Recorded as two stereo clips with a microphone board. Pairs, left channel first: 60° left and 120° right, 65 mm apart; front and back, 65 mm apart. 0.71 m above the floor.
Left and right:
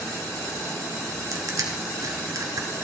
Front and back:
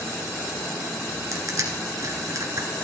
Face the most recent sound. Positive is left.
turn(degrees=-150)